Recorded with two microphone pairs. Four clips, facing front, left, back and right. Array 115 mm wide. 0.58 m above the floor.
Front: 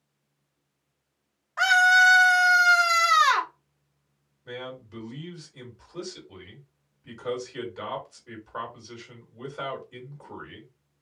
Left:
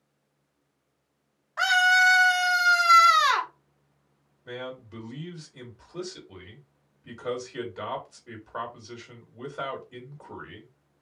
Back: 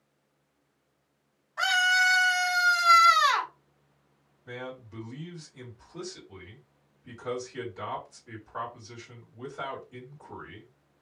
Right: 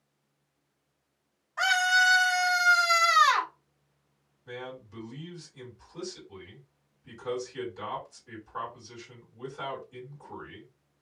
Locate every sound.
1.6 s a scream: 40° left, 0.9 m
4.5 s a man speaking: 70° left, 1.7 m